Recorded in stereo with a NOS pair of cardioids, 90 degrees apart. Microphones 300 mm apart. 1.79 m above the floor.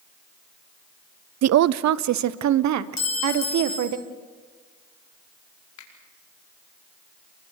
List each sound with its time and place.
1.4 s a woman speaking: 60° right, 0.7 m; by 4.0 s 70° right, 2 m
3.0 s a clink: 60° left, 5 m
5.8 s a finger snap: 65° left, 5 m